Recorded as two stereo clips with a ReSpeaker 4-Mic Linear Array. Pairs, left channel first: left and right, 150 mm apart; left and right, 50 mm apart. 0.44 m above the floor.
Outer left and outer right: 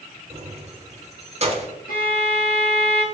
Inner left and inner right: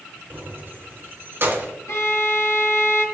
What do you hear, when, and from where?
0.3 s keys jangling: 45° right (ahead or behind), 1.1 m; by 1.7 s 40° right (ahead or behind), 1.1 m
1.9 s a violin: 75° left (ahead or behind), 1.8 m